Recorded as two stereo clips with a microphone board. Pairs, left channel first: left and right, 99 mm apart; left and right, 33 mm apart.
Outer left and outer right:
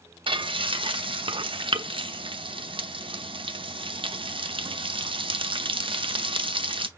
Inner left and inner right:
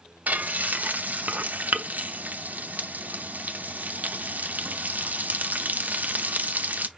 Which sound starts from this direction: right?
Frying, at 0.3 s.